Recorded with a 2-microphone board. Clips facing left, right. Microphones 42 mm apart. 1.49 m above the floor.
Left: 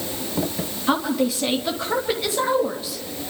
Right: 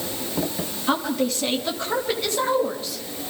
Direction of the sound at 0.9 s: 5° left (ahead or behind).